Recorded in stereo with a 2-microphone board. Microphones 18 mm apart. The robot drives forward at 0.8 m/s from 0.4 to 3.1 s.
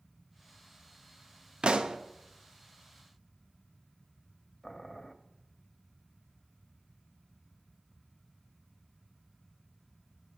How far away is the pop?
About 0.5 m.